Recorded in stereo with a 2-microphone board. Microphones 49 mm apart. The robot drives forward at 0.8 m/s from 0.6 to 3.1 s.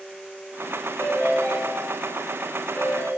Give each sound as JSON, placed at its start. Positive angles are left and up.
{"t": 1.0, "sound": "a ringtone", "side_deg": 55, "distance_m": 8.5}